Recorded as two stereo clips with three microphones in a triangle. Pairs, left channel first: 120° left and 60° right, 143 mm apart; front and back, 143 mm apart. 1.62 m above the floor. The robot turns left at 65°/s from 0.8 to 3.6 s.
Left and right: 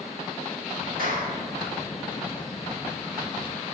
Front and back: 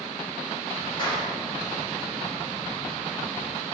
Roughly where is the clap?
Ahead right.